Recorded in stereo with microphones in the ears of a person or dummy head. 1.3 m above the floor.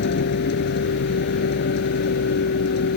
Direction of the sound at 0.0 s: 55° left (ahead or behind).